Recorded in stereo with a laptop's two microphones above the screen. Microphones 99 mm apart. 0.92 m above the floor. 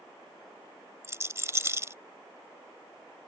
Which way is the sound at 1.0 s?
30° right (ahead or behind).